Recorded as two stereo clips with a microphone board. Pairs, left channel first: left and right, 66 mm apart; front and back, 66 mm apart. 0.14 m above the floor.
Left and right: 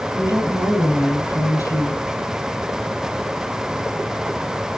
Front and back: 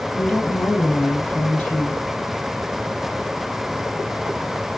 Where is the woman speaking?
75° left, 4 m.